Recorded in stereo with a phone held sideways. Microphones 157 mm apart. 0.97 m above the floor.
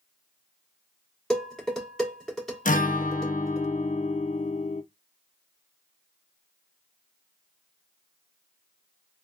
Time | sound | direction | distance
1.3 | dishes clattering | 5° left (ahead or behind) | 1.8 m
2.6 | a guitar | 55° left (ahead or behind) | 0.6 m